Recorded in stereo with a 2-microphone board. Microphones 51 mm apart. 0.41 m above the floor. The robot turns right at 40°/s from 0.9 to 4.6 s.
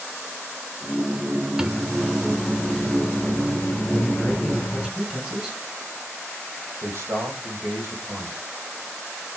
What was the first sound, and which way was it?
A microwave, 20° right.